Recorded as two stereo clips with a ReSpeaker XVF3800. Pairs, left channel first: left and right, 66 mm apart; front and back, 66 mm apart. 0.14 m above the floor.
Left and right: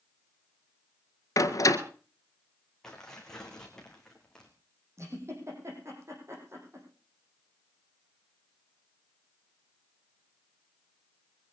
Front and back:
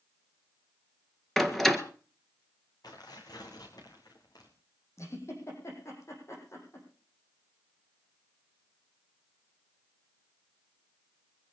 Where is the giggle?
45° right, 6 m.